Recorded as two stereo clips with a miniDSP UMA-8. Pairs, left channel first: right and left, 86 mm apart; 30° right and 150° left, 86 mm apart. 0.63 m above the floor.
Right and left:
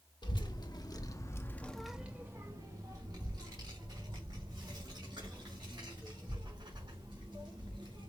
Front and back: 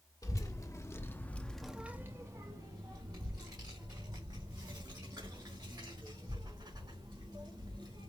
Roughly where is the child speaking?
Right.